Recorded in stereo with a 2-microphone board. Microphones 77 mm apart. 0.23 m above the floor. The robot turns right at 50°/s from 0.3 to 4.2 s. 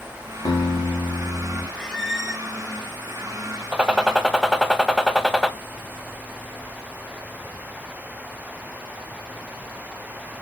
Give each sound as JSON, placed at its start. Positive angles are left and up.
{"t": 0.5, "sound": "a guitar", "azimuth_deg": 90, "distance_m": 1.3}
{"t": 1.8, "sound": "a squeak", "azimuth_deg": 165, "distance_m": 1.0}
{"t": 3.7, "sound": "a gunshot", "side_deg": -15, "distance_m": 0.6}